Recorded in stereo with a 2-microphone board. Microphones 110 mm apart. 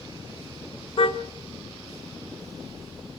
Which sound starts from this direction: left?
A car horn, at 1.0 s.